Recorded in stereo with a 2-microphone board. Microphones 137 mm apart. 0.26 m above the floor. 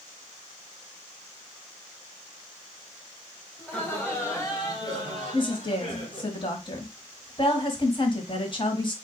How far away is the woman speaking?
About 1.3 m.